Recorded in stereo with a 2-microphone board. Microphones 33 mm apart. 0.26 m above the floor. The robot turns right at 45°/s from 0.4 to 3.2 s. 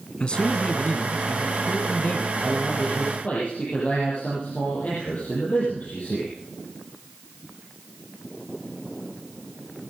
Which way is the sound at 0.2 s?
40° left.